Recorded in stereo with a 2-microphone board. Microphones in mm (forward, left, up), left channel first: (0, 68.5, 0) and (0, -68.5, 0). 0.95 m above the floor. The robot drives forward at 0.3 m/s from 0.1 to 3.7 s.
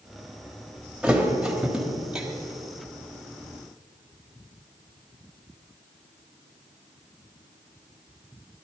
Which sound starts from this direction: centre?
A thud, at 1.0 s.